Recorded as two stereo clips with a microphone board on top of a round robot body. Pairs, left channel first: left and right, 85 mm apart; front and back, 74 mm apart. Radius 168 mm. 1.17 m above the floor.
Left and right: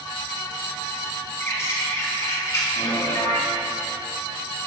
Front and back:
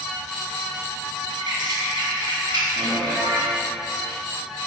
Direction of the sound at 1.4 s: 150° left.